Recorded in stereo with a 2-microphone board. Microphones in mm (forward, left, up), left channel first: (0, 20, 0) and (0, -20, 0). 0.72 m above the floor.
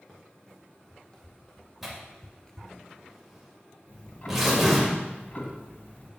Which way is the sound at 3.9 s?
45° left (ahead or behind).